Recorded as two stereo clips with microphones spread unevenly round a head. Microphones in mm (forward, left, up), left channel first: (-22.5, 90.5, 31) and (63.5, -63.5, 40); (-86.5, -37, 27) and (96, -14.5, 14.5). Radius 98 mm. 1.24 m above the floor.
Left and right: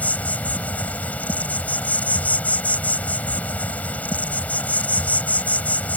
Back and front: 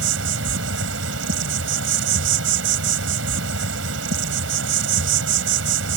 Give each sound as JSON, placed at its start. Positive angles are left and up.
{"t": 0.0, "sound": "an insect", "azimuth_deg": 35}